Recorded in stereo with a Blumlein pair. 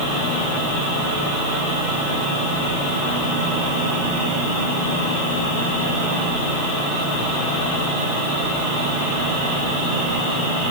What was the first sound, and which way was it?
Only background noise.